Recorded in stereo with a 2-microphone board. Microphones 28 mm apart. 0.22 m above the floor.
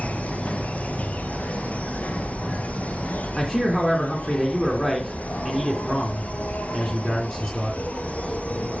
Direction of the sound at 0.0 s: 55° left (ahead or behind).